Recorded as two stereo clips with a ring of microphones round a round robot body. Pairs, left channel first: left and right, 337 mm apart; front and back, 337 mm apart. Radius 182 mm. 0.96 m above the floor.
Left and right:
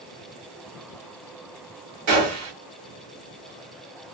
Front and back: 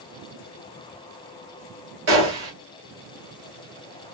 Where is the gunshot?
130° right, 2.5 m.